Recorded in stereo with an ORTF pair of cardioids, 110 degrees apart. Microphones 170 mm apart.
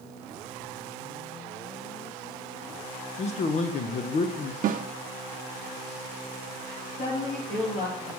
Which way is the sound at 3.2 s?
45° left.